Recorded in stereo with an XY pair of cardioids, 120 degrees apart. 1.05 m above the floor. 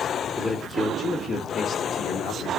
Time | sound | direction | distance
0.4 | a man speaking | 15° left | 2.5 m